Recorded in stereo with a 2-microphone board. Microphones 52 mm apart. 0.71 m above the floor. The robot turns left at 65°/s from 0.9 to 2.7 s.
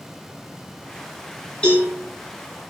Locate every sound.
1.6 s a cowbell: 20° left (ahead or behind), 5 m; by 1.9 s 35° left (ahead or behind), 5 m